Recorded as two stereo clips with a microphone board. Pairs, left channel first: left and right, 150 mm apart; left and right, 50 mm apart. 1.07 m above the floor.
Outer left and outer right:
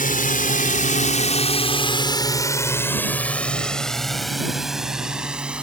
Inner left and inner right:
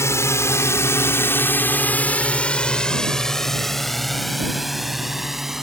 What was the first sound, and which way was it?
A drone, 75° left (ahead or behind).